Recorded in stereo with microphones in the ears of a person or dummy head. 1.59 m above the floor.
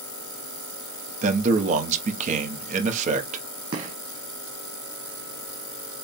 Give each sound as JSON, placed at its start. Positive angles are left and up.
{"t": 1.2, "sound": "a man speaking", "side_deg": -50, "distance_m": 1.0}
{"t": 3.7, "sound": "a gunshot", "side_deg": -35, "distance_m": 1.1}